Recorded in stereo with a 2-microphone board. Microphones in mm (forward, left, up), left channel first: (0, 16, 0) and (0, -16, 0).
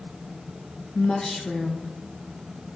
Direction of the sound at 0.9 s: 30° left (ahead or behind).